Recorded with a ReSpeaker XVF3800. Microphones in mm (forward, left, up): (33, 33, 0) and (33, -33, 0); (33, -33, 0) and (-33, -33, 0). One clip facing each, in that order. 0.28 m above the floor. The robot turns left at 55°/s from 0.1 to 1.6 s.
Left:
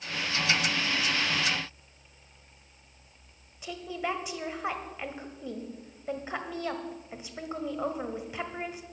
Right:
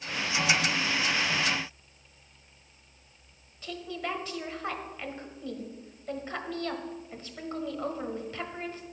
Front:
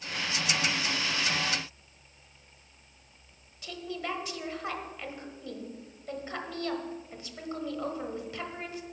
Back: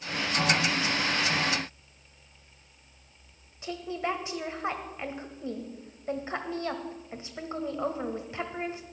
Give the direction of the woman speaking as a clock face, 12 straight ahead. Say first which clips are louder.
Left 2 dB, back 4 dB; 7 o'clock.